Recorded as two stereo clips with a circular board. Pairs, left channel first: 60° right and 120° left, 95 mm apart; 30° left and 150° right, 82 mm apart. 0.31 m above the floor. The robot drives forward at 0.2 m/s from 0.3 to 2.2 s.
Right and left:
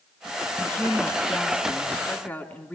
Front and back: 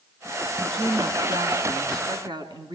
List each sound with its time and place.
0.6 s a woman speaking: 125° right, 3.5 m; by 2.8 s 130° right, 4 m